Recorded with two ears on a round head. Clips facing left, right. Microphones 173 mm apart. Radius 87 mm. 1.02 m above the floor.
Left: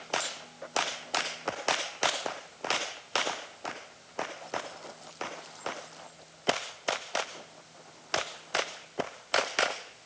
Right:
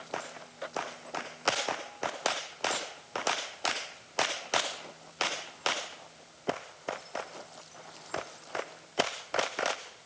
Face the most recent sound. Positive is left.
No sound to turn to.